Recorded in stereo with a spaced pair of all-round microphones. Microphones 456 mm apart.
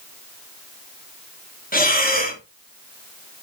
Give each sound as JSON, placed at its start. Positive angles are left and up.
{"t": 1.7, "sound": "breathing", "side_deg": 20, "distance_m": 2.5}